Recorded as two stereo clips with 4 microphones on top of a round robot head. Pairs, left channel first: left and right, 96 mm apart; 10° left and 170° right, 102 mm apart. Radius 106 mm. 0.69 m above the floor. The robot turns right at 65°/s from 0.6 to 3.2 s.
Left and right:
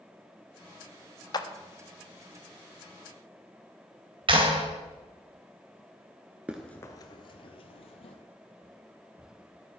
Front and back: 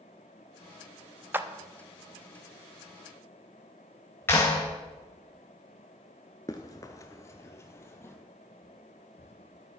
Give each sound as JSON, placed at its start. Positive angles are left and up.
{"t": 1.3, "sound": "a clap", "azimuth_deg": 120, "distance_m": 1.0}
{"t": 4.3, "sound": "a clap", "azimuth_deg": -65, "distance_m": 2.5}
{"t": 6.5, "sound": "running footsteps", "azimuth_deg": -35, "distance_m": 0.6}